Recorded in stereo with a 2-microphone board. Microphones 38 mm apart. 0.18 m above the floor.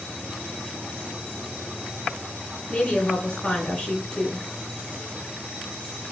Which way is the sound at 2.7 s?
15° left (ahead or behind).